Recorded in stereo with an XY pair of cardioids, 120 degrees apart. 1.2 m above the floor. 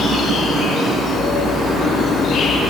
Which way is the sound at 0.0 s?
60° left.